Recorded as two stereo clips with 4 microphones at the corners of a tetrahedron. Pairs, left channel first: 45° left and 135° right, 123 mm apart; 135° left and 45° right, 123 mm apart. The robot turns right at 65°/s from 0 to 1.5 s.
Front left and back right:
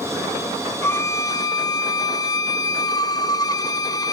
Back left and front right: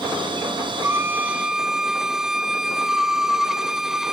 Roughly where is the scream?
I don't hear a scream.